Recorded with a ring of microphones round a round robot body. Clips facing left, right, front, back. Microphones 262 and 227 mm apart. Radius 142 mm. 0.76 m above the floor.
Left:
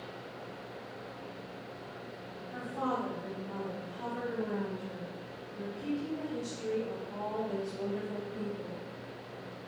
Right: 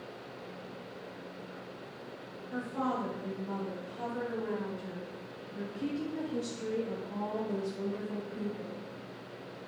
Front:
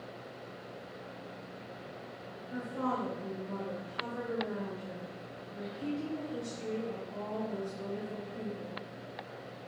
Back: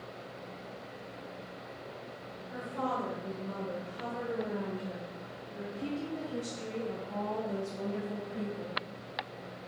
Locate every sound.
2.5 s a woman speaking: 65° right, 2.5 m; by 8.8 s straight behind, 1.4 m